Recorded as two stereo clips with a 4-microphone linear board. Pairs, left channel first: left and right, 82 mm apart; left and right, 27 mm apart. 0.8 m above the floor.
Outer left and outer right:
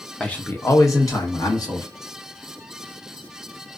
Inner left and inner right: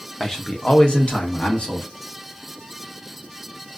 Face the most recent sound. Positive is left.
turn(degrees=45)  # may be behind; listen again after turning